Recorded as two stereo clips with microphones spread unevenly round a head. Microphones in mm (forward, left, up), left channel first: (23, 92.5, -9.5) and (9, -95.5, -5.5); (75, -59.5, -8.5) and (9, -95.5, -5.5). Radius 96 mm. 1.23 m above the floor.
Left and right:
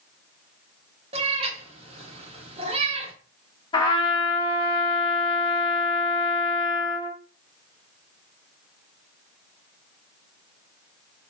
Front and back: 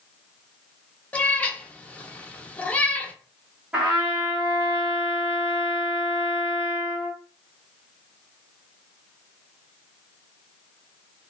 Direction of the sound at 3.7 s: 140° left.